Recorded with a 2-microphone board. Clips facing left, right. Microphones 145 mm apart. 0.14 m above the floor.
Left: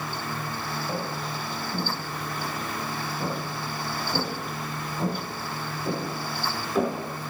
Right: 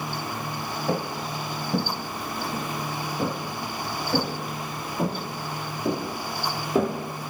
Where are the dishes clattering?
I don't hear dishes clattering.